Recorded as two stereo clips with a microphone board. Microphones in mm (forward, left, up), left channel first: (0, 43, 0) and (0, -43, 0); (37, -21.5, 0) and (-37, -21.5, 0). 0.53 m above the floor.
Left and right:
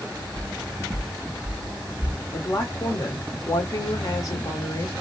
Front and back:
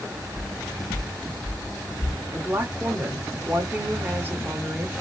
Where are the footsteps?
20° left, 1.2 m; by 2.2 s 20° right, 2 m.